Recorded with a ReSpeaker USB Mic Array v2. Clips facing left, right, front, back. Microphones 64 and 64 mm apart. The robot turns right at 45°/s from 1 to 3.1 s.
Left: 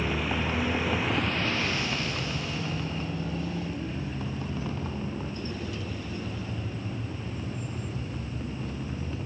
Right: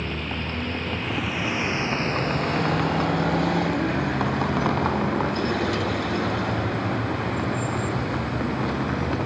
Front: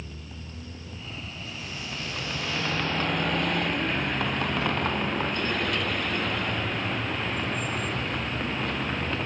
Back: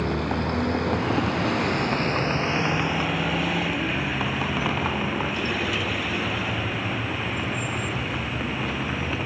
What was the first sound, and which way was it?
A vehicle, 170° left.